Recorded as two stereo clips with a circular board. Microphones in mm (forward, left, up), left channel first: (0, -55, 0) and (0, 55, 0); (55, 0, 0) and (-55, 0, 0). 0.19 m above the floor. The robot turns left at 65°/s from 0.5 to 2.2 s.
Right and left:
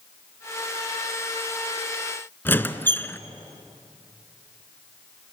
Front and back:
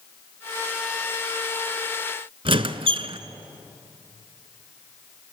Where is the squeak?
160° right, 0.9 m.